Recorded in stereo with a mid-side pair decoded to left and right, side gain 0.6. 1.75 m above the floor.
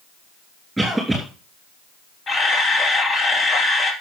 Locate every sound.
0.8 s a cough: 5° right, 2.5 m
2.3 s a camera shutter: 35° left, 3 m